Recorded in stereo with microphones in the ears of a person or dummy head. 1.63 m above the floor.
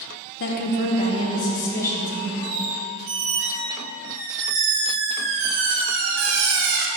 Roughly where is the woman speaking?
Left.